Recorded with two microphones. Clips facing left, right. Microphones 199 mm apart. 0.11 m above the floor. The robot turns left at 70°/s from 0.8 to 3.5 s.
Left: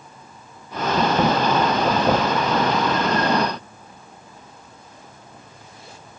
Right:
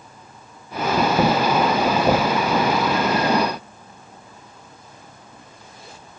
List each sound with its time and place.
Only background noise.